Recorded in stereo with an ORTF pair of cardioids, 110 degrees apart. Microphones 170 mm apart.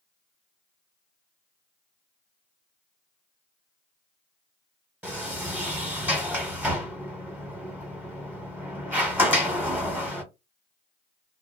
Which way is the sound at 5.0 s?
10° right.